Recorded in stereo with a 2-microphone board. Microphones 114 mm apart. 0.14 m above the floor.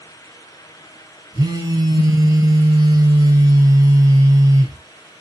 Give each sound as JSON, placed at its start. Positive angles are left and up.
{"t": 1.3, "sound": "a phone buzzing", "side_deg": -35, "distance_m": 1.4}